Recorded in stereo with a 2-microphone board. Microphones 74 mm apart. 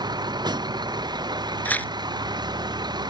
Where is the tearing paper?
25° left (ahead or behind).